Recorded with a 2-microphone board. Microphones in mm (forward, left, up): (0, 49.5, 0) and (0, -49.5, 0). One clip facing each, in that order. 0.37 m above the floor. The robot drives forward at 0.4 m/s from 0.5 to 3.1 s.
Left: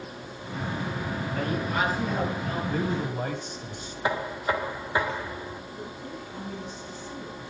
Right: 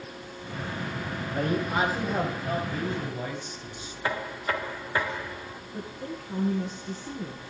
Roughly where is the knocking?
Centre.